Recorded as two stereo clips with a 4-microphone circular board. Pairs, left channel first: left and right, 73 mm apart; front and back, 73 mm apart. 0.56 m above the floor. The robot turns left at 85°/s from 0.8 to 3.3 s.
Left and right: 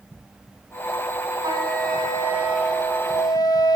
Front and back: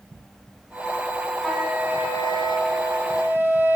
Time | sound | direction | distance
1.4 | a flute | 80° right | 5.5 m